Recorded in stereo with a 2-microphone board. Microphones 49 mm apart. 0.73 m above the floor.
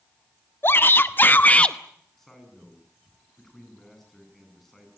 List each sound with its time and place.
0.6 s a shout: 50° left (ahead or behind), 1.7 m; by 1.8 s 15° left (ahead or behind), 0.9 m
2.2 s a man speaking: 5° left (ahead or behind), 9 m